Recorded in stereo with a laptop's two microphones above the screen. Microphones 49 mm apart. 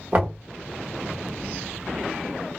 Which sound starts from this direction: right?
Knocking, at 0.1 s.